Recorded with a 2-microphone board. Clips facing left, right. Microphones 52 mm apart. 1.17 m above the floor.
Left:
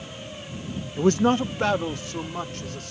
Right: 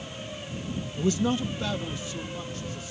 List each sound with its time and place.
1.0 s a man speaking: 45° left (ahead or behind); by 2.9 s 65° left (ahead or behind)